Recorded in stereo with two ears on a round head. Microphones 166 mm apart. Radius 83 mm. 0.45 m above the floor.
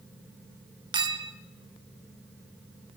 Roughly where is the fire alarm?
No fire alarm in this recording.